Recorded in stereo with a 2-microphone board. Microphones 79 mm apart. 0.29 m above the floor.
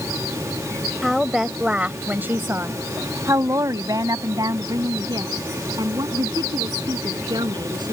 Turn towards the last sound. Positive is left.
turn(degrees=-70)  # may be behind; listen again after turning